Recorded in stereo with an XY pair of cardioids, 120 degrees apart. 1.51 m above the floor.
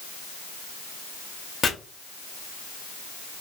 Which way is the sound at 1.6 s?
35° left.